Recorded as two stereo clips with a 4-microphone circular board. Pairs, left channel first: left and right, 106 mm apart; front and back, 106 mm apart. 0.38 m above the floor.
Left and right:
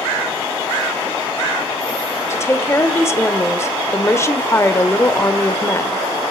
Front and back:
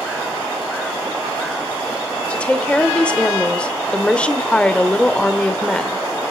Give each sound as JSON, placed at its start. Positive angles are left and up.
{"t": 2.3, "sound": "a woman speaking", "azimuth_deg": 70, "distance_m": 0.9}